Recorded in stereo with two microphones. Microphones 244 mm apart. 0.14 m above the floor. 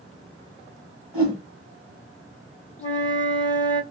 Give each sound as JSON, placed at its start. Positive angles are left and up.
{"t": 1.1, "sound": "a whoosh", "side_deg": 15, "distance_m": 3.5}
{"t": 2.8, "sound": "a flute", "side_deg": 5, "distance_m": 2.0}